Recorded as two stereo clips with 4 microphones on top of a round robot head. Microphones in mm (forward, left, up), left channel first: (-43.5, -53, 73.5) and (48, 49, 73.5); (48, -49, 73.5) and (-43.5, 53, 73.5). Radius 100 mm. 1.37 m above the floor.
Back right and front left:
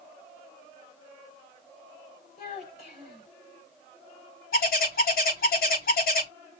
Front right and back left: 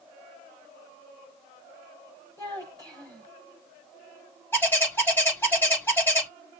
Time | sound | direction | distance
2.4 | a child speaking | 115° right | 5 m
4.5 | a bird | 125° right | 5.5 m